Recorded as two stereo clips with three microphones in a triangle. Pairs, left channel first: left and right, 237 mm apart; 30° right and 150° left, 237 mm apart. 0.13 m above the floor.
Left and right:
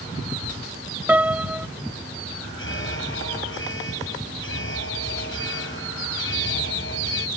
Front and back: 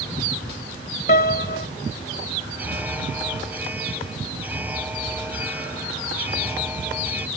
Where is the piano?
10° right.